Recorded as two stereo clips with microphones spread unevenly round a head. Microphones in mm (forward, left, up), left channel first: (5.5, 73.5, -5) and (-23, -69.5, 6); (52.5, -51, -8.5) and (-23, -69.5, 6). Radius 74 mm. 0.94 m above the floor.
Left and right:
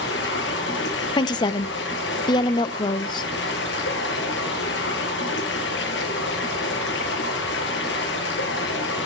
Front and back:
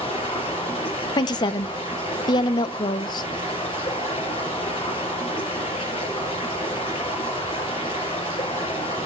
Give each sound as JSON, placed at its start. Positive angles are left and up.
{"t": 0.0, "sound": "running water", "azimuth_deg": 65, "distance_m": 6.0}
{"t": 1.2, "sound": "a woman speaking", "azimuth_deg": 20, "distance_m": 0.7}